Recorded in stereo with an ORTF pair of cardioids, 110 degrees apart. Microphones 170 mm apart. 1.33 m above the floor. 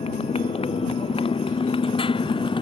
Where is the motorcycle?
35° left; by 2.6 s 30° left.